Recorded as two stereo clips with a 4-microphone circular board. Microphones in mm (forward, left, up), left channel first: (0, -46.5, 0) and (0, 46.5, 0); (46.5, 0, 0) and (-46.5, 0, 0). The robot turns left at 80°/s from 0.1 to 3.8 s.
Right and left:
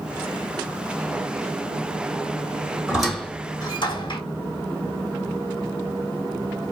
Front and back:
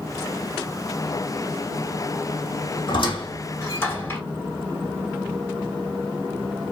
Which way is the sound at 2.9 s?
15° left.